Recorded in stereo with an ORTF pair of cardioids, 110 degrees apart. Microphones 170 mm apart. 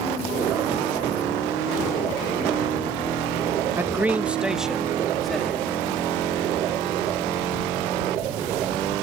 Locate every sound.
3.8 s a man speaking: 15° right; by 5.8 s 5° left